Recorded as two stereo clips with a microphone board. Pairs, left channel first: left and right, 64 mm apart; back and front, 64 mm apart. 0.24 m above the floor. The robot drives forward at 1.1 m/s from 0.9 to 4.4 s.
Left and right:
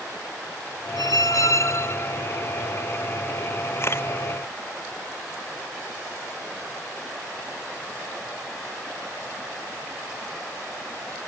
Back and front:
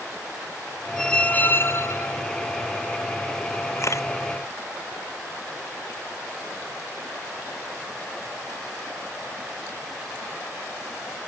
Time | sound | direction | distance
1.0 | a squeak | 95° left | ?
3.8 | a camera shutter | 140° left | ?